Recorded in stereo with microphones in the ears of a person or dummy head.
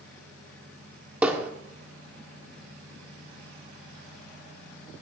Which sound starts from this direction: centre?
Hammering, at 1.2 s.